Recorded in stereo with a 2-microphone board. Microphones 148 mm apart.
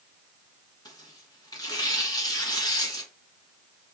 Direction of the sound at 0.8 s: 25° left (ahead or behind).